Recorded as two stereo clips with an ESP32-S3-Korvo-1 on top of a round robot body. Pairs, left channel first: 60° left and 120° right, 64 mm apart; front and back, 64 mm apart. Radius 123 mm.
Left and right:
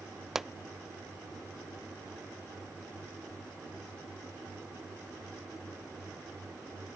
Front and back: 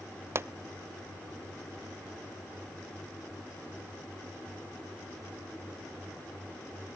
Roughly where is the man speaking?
I don't hear a man speaking.